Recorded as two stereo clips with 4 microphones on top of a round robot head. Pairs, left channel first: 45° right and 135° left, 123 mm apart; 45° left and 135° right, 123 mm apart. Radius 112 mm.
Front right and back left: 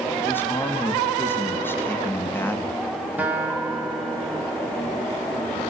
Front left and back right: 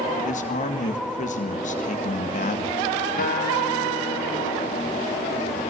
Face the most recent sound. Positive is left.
turn(degrees=55)